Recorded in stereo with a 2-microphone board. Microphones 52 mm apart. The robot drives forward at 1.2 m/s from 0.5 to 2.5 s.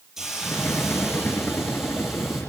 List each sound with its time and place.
0.2 s a hiss: 10° right (ahead or behind), 9 m; by 2.4 s 5° right (ahead or behind), 11.5 m